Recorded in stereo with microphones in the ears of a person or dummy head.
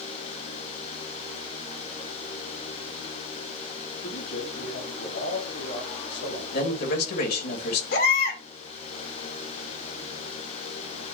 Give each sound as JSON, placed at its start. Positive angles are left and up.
{"t": 4.0, "sound": "a man speaking", "side_deg": 80, "distance_m": 4.5}
{"t": 6.5, "sound": "a man speaking", "side_deg": 60, "distance_m": 2.5}
{"t": 7.9, "sound": "a baby crying", "side_deg": 65, "distance_m": 3.0}